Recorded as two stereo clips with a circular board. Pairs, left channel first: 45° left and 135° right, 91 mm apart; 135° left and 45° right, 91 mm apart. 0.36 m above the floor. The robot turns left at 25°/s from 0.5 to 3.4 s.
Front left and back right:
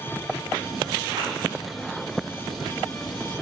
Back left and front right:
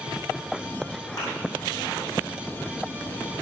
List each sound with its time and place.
1.2 s a thud: straight behind, 5 m